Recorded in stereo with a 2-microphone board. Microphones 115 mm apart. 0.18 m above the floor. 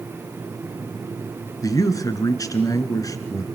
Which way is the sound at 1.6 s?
30° left (ahead or behind).